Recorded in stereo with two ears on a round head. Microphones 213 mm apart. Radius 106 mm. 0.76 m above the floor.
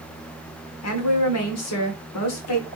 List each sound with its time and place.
0.8 s a woman speaking: 70° left (ahead or behind), 1.9 m